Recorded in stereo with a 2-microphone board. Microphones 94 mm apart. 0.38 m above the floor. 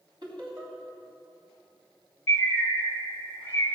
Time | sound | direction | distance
0.2 | laughter | 55° right (ahead or behind) | 3 m
2.3 | a bird | 20° left (ahead or behind) | 3 m